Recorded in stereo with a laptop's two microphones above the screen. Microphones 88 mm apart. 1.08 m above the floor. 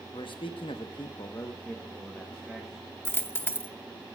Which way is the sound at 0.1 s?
70° left (ahead or behind).